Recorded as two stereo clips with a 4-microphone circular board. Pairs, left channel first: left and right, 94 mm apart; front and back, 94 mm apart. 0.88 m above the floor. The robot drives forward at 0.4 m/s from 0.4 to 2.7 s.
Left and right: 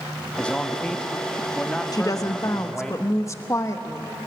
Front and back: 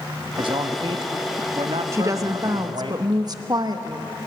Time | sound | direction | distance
0.4 | a man speaking | 165° left | 1.5 m
1.9 | a woman speaking | 125° left | 0.9 m